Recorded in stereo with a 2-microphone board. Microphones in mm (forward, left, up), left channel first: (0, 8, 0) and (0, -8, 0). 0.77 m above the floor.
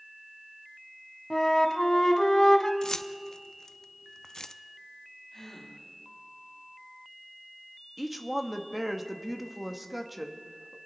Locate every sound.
1.3 s a flute: 35° left (ahead or behind), 1.0 m
2.8 s keys jangling: 45° left (ahead or behind), 0.6 m
5.3 s a gasp: 30° left (ahead or behind), 5 m
8.0 s a woman speaking: 5° right (ahead or behind), 1.0 m